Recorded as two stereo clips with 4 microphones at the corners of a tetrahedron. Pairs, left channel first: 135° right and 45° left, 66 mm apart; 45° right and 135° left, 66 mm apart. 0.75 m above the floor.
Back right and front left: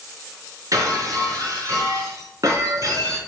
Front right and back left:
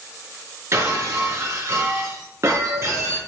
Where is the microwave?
I don't hear a microwave.